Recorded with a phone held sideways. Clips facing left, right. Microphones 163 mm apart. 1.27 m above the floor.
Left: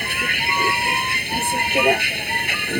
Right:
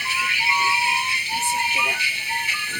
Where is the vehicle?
60° left (ahead or behind); by 2.8 s 65° left (ahead or behind).